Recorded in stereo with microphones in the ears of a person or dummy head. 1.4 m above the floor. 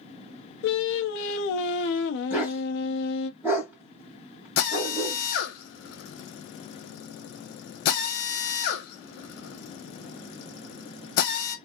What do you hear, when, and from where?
0.6 s singing: 70° left (ahead or behind), 0.6 m
2.3 s a dog barking: 15° right (ahead or behind), 1.7 m
4.6 s a drill: 65° left (ahead or behind), 1.0 m